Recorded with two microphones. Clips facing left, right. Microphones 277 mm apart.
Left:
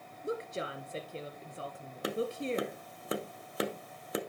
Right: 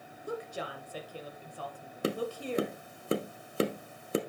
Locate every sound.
0.2 s a woman speaking: 25° left (ahead or behind), 1.9 m
2.0 s tapping: 30° right (ahead or behind), 0.9 m